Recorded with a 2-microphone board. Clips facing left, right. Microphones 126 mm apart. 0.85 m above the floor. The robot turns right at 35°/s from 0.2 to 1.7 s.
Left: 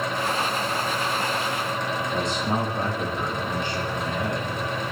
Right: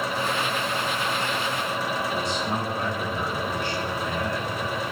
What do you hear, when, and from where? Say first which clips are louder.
2.1 s a man speaking: left 2 dB; 20° left (ahead or behind), 1.7 m